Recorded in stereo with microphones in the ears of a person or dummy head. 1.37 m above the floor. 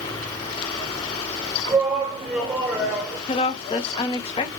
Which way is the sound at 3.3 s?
20° left (ahead or behind).